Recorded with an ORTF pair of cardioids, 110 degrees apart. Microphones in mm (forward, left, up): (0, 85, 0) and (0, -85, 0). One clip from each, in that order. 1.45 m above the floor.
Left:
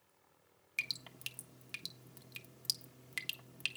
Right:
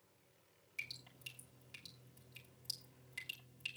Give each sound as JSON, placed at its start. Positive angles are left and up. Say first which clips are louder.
{"t": 0.8, "sound": "dripping", "louder": "left 8 dB", "azimuth_deg": 70, "distance_m": 1.4}